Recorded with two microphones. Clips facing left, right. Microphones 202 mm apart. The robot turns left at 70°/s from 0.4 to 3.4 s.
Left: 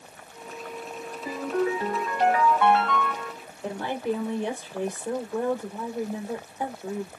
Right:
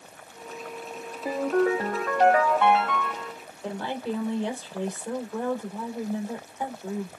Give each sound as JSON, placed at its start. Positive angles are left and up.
{"t": 1.2, "sound": "a ringtone", "azimuth_deg": -60, "distance_m": 3.0}
{"t": 3.6, "sound": "a woman speaking", "side_deg": 15, "distance_m": 3.0}